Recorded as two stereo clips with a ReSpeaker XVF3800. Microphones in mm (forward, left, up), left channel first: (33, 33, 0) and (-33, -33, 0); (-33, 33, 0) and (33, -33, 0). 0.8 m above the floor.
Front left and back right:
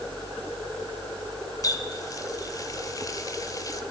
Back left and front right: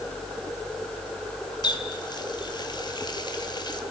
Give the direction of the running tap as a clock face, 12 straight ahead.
9 o'clock.